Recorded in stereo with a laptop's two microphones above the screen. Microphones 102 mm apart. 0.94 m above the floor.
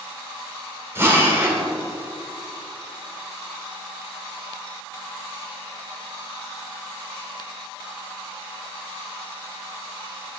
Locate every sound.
0.9 s a drill: 25° right (ahead or behind), 1.8 m